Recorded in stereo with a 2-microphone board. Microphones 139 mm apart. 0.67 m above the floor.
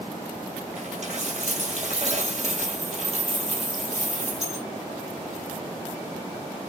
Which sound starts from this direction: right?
A dropped coin, at 0.8 s.